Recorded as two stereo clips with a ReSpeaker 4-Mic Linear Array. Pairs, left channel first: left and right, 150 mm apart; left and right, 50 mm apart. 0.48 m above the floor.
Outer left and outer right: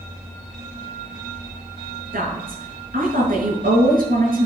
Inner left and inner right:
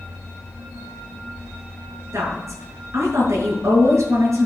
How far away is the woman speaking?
About 6 m.